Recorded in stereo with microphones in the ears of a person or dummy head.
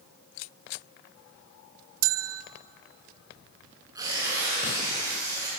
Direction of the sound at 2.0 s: 75° right (ahead or behind).